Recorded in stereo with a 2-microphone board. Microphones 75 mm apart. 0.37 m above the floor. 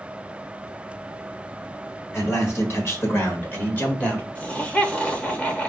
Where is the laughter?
15° left (ahead or behind), 0.8 m.